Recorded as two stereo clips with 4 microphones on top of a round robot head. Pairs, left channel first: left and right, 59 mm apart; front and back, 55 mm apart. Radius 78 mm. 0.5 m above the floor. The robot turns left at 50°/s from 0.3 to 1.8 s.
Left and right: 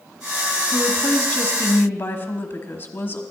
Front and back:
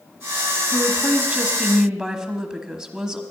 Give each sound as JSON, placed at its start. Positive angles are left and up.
{"t": 0.7, "sound": "a woman speaking", "azimuth_deg": 170, "distance_m": 1.3}